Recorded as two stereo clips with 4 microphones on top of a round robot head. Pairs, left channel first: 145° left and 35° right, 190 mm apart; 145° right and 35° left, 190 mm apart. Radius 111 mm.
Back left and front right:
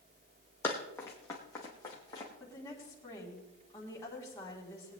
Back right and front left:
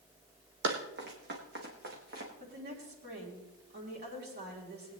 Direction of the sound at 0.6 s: 65° left.